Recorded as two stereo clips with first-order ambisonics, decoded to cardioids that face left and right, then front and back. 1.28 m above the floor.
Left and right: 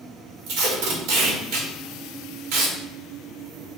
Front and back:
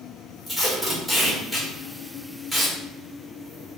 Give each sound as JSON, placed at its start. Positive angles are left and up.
{"t": 0.5, "sound": "tape being pulled", "azimuth_deg": -90, "distance_m": 1.3}